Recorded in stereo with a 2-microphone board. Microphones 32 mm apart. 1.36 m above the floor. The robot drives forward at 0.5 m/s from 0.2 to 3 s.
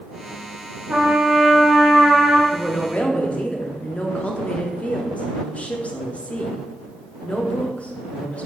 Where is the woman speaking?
40° left (ahead or behind), 0.5 m.